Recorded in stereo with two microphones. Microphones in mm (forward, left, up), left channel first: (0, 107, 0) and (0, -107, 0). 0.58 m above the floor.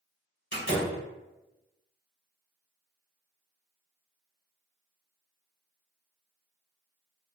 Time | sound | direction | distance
0.5 | a door slam | 50° left (ahead or behind) | 1.4 m